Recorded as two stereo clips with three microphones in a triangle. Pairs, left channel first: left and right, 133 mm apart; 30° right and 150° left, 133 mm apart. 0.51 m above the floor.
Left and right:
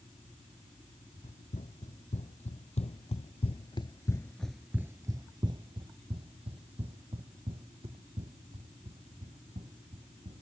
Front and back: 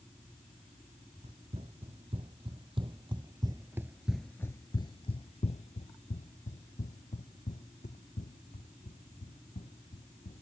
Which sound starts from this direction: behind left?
Running footsteps, at 1.2 s.